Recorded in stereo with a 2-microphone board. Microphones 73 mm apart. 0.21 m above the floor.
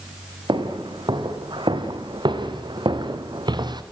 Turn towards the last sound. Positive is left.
turn(degrees=-65)  # may be behind; listen again after turning